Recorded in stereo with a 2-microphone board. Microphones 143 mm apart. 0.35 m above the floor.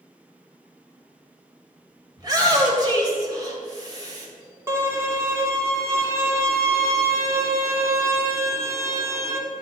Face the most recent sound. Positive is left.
turn(degrees=-20)  # may be behind; listen again after turning